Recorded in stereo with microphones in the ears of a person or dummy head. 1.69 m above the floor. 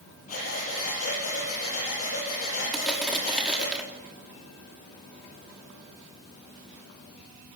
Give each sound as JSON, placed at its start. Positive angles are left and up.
{"t": 0.3, "sound": "breathing", "side_deg": 45, "distance_m": 8.5}
{"t": 2.7, "sound": "crushing", "side_deg": 0, "distance_m": 3.5}